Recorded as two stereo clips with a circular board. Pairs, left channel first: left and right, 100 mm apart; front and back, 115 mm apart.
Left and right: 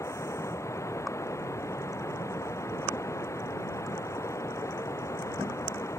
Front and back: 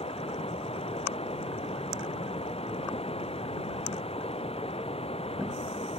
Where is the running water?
30° left.